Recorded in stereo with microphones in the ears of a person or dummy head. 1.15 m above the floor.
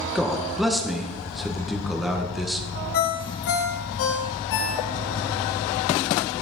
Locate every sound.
0.1 s a man speaking: centre (ahead or behind), 1.1 m
2.9 s a ringtone: 70° left (ahead or behind), 2 m